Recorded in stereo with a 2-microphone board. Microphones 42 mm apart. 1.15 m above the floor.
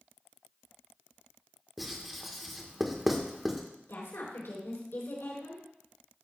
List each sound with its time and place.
1.8 s writing: 5° right (ahead or behind), 1.5 m
3.9 s a woman speaking: 80° left, 4 m